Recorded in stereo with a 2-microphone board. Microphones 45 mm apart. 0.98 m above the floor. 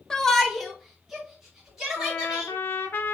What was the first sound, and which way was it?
A shout, 15° left (ahead or behind).